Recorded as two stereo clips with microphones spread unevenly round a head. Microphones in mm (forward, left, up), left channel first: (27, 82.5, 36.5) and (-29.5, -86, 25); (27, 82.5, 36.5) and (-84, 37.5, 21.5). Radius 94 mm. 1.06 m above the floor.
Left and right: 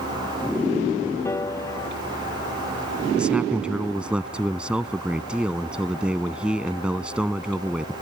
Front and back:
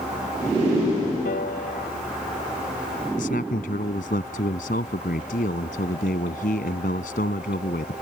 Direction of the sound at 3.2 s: 25° right.